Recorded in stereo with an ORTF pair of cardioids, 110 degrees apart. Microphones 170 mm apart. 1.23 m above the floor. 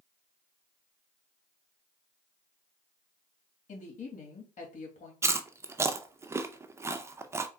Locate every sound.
3.7 s a woman speaking: 45° left, 2.5 m
5.2 s chewing: 15° right, 0.6 m